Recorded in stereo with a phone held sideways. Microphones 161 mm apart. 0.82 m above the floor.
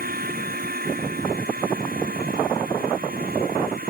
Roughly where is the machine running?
Right.